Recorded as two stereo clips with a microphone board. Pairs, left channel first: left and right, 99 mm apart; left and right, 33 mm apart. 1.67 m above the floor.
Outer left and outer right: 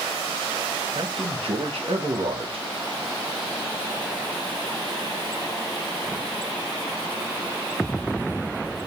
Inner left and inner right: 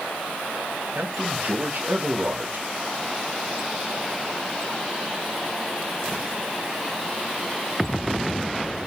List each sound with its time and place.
0.9 s a man speaking: 70° right (ahead or behind), 1.7 m